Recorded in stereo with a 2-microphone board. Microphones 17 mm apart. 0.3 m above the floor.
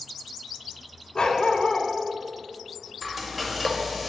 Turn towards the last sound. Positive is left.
turn(degrees=-15)  # may be behind; listen again after turning